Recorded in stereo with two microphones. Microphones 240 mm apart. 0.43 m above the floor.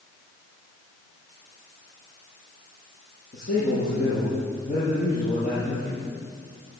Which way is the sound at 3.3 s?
30° left (ahead or behind).